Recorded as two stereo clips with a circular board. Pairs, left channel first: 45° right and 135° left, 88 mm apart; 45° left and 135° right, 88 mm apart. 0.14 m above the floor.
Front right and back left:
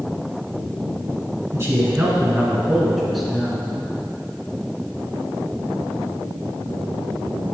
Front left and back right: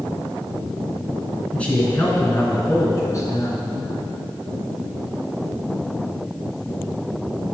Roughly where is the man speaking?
Left.